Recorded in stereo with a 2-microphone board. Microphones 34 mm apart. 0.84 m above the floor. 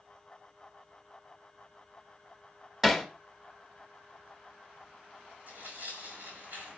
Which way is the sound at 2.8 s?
Centre (ahead or behind).